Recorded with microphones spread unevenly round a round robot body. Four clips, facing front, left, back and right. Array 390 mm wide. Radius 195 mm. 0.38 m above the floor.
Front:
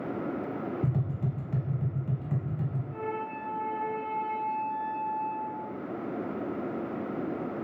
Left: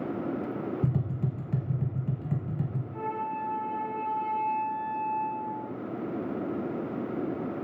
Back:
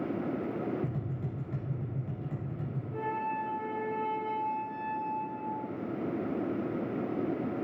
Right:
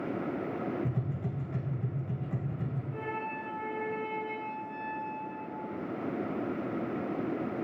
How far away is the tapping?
About 4 m.